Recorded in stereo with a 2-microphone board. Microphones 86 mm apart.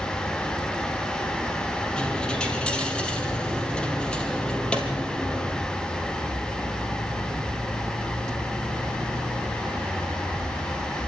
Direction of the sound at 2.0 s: 10° left (ahead or behind).